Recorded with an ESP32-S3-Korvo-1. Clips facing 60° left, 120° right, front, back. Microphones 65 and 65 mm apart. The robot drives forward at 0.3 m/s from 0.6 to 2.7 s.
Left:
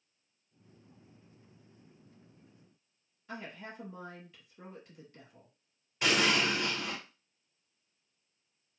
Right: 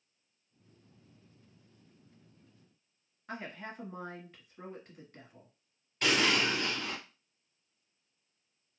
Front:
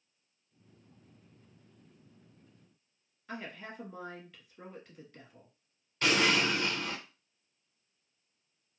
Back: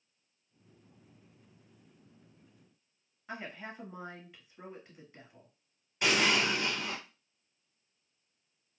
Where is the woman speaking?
120° right, 1.2 m.